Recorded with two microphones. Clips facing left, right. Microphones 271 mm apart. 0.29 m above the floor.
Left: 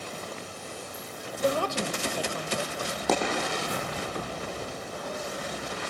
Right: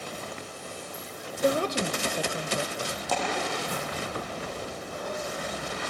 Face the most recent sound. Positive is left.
turn(degrees=85)